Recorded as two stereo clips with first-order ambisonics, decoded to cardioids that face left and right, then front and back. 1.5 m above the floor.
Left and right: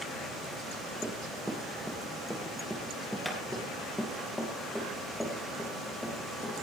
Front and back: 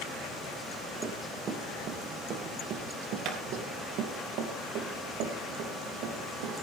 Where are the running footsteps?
165° right, 1.6 m; by 6.5 s 170° left, 4 m.